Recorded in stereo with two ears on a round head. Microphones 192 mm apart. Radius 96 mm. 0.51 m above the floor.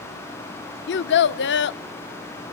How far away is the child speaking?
About 0.6 m.